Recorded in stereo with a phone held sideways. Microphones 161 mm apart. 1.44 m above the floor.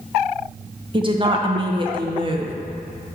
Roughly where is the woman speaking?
Right.